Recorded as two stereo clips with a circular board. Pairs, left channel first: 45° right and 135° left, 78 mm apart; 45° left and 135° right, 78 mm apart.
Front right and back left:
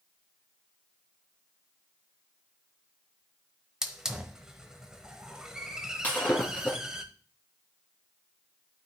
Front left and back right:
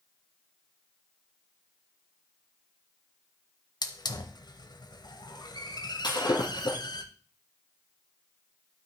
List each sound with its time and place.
3.8 s a hiss: 55° left, 0.8 m
6.0 s breaking glass: 25° left, 2 m